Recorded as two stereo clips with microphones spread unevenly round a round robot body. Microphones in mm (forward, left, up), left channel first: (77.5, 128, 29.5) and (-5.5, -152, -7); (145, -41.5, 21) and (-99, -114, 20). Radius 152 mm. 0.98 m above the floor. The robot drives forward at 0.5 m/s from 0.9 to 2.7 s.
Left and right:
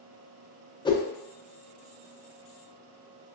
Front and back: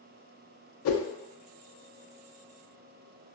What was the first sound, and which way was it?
A whoosh, 5° right.